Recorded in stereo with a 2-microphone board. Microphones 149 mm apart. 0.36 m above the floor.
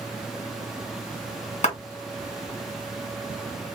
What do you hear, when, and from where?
1.6 s a clap: 50° left (ahead or behind), 1.8 m